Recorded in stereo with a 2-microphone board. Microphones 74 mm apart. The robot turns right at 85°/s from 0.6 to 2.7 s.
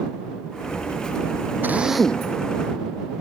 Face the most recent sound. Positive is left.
turn(degrees=60)